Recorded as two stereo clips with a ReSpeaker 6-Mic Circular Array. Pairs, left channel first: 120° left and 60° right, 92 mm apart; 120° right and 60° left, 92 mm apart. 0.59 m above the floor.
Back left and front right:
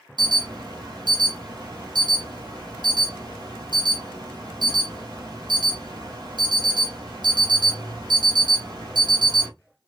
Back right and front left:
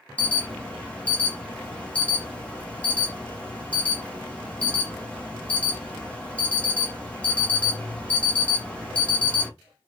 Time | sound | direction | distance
0.2 | an alarm | 50° right | 1.0 m